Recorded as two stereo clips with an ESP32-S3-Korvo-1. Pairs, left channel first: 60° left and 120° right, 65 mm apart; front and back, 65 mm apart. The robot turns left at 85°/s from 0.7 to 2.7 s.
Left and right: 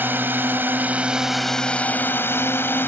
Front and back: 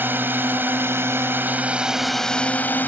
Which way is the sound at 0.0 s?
150° right.